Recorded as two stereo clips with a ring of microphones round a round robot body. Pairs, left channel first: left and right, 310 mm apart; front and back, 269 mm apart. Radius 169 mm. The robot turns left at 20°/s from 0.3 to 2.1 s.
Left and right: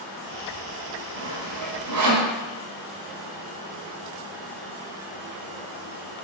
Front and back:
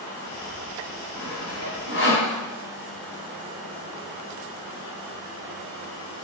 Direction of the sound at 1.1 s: 35° right.